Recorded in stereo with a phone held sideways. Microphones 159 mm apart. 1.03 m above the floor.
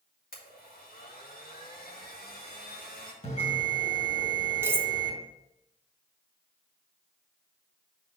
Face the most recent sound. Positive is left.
turn(degrees=-15)  # may be behind; listen again after turning